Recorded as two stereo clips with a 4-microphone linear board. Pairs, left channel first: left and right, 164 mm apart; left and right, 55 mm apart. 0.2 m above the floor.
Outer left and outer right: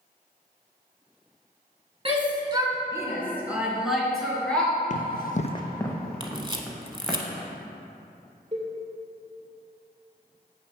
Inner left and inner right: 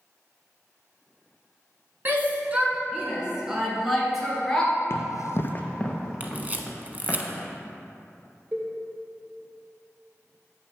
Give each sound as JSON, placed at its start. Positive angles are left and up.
{"t": 2.0, "sound": "a shout", "side_deg": -35, "distance_m": 1.8}
{"t": 4.9, "sound": "running footsteps", "side_deg": 50, "distance_m": 0.7}
{"t": 6.2, "sound": "a camera shutter", "side_deg": -30, "distance_m": 0.7}
{"t": 8.5, "sound": "a cowbell", "side_deg": -40, "distance_m": 2.0}